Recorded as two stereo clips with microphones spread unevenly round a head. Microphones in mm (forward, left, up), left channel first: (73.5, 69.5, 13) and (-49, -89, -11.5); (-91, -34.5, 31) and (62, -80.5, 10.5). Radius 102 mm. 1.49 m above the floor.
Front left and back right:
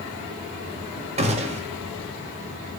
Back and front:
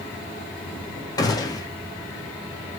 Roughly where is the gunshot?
Behind.